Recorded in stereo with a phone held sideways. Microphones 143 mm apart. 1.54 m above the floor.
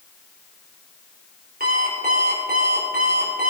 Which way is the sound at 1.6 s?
75° right (ahead or behind).